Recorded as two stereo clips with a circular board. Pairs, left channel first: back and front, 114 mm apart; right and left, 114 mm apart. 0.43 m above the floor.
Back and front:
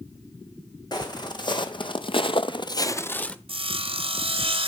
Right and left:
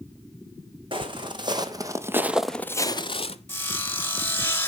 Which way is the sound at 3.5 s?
20° right.